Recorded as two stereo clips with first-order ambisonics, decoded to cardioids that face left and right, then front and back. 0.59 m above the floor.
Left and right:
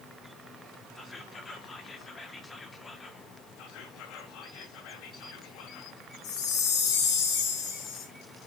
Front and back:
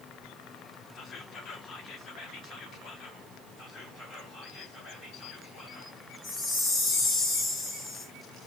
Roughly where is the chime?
Ahead left.